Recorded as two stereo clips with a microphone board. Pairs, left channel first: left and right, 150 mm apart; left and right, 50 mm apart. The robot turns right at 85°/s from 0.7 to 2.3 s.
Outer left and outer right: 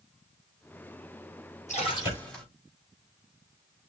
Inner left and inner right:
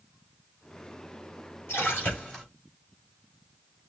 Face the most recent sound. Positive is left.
turn(degrees=175)